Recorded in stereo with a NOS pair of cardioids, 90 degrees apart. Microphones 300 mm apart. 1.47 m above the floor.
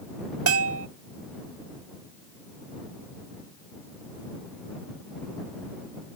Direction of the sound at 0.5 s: 50° right.